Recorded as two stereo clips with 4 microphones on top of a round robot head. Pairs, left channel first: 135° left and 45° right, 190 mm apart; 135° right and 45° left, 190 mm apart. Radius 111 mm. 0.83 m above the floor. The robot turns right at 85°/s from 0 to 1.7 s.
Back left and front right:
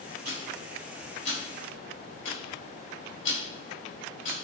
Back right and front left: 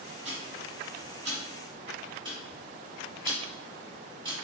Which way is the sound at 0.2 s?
10° right.